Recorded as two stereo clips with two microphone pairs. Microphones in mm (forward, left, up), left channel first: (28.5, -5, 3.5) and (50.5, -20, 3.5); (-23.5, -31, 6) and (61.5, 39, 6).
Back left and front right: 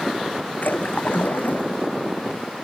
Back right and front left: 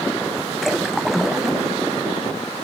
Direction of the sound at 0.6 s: 125° left.